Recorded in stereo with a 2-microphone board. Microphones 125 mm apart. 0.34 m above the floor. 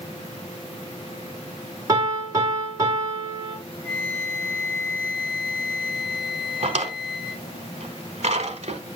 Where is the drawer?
60° right (ahead or behind), 1.0 m.